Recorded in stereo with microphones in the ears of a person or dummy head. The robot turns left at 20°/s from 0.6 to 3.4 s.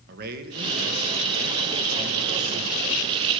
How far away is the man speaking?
About 1.7 m.